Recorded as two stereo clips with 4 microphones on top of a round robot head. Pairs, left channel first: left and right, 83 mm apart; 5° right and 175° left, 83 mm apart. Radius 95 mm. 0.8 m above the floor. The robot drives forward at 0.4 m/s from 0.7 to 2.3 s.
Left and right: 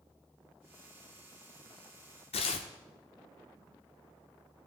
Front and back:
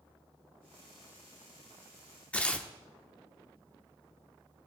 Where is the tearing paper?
70° left, 0.8 m.